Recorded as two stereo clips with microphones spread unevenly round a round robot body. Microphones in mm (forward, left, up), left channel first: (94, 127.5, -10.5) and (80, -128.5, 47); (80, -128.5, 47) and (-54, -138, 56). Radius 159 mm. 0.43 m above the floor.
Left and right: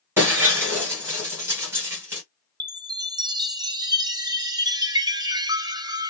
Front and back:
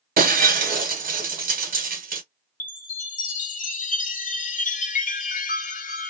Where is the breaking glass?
Straight behind, 1.0 m.